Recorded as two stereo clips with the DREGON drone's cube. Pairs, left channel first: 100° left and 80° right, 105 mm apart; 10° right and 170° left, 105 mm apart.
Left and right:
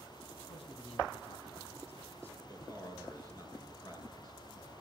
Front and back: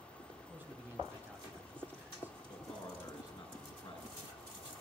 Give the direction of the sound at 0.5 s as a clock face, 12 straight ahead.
9 o'clock.